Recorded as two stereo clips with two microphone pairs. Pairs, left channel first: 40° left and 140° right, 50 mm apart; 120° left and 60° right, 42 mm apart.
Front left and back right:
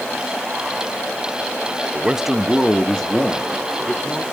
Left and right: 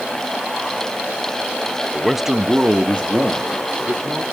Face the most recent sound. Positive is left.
turn(degrees=-25)